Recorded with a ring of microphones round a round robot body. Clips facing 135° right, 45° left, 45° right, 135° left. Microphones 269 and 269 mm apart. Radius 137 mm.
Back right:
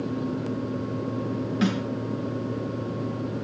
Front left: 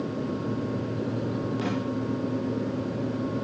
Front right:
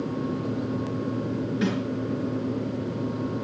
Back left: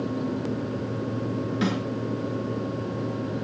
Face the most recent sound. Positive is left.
turn(degrees=-150)